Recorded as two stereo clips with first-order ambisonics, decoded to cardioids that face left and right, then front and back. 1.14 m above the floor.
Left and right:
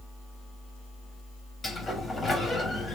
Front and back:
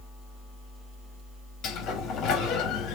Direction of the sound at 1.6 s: 20° left.